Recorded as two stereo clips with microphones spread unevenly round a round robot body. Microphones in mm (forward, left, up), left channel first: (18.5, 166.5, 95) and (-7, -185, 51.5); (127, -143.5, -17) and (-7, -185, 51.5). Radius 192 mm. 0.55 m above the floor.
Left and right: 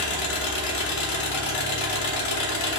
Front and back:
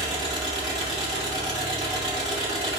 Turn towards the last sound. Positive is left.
turn(degrees=115)